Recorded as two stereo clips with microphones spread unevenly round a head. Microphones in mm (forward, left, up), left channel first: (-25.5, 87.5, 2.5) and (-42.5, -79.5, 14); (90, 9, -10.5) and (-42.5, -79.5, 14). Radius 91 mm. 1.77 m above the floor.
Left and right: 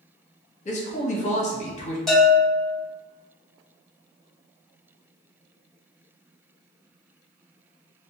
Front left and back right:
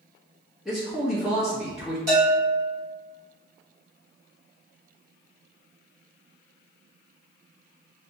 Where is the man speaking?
130° left, 1.0 m.